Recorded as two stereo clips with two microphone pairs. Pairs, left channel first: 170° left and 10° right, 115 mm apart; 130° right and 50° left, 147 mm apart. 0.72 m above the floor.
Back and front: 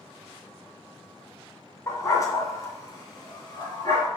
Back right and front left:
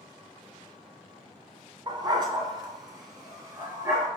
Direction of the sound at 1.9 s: 110° left.